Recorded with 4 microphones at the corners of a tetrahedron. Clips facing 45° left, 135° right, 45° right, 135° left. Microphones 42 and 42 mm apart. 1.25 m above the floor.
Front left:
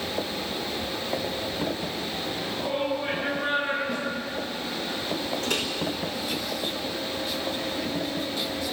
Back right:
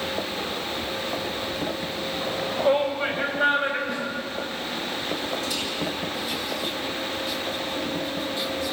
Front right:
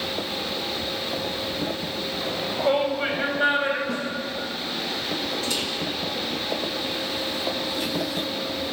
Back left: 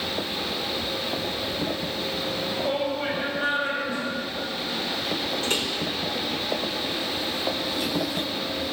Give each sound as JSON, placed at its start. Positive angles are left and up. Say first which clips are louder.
{"t": 2.2, "sound": "a shout", "louder": "back right 11 dB, front right 5 dB", "azimuth_deg": -105, "distance_m": 4.5}
{"t": 3.9, "sound": "a snare drum", "louder": "back right 1 dB, front right 1 dB", "azimuth_deg": -45, "distance_m": 8.0}
{"t": 5.4, "sound": "a microwave", "louder": "front left 2 dB, back left 1 dB", "azimuth_deg": 85, "distance_m": 4.5}